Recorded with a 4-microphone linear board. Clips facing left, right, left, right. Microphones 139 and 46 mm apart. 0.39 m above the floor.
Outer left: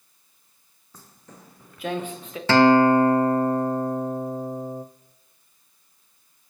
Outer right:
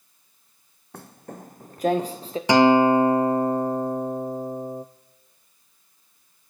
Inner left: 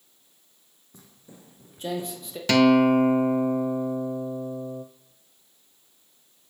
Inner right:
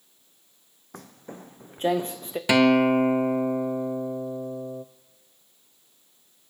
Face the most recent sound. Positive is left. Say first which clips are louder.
# even, inner left 1 dB
turn(degrees=-15)  # may be behind; listen again after turning